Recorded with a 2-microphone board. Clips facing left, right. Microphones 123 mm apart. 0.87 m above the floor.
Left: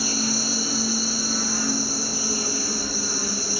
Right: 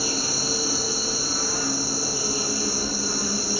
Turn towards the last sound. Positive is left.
turn(degrees=-25)  # may be behind; listen again after turning